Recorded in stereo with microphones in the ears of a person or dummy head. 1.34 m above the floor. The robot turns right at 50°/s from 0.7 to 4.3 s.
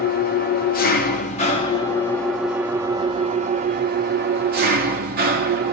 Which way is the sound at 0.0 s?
95° left.